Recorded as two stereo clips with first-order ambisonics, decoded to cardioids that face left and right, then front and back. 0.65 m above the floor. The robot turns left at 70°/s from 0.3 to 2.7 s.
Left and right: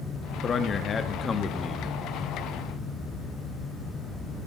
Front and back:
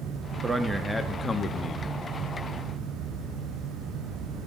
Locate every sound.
0.4 s a man speaking: 120° left, 0.8 m; by 1.9 s 15° left, 0.8 m